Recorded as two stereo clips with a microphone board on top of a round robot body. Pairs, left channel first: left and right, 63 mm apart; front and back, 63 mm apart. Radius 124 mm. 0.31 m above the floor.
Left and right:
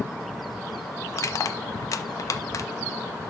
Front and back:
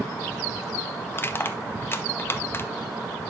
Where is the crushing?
55° left, 0.5 m.